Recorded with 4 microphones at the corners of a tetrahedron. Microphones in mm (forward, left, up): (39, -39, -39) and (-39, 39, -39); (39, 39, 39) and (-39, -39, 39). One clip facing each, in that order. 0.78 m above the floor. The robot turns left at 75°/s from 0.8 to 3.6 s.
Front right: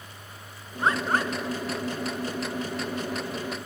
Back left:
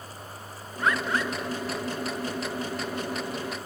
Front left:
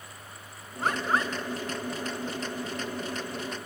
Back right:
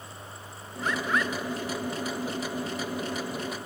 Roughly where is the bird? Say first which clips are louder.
Front right 1 dB, front left 1 dB; ahead.